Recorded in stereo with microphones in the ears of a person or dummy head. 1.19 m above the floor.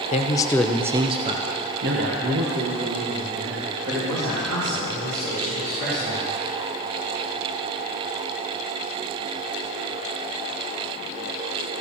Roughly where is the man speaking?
Left.